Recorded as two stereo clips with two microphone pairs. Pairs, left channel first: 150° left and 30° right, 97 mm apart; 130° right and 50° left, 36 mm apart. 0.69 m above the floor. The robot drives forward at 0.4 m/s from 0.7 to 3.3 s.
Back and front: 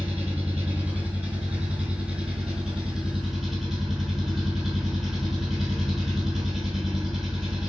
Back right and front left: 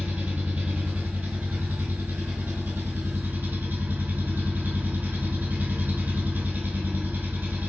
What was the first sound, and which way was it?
An engine running, 45° left.